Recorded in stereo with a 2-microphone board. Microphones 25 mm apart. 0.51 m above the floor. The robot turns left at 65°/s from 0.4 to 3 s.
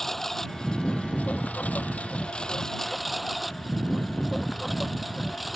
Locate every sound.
0.0 s a lawn mower: 165° left; by 5.6 s 5° right